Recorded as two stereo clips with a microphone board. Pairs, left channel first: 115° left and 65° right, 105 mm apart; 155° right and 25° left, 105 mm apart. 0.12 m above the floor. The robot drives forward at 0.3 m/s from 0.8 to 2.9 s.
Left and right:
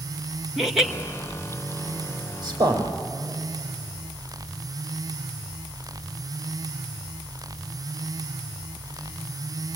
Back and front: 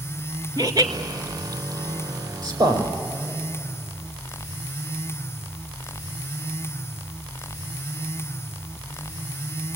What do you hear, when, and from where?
0.6 s laughter: 20° left, 1.7 m
2.4 s a man speaking: 20° right, 5 m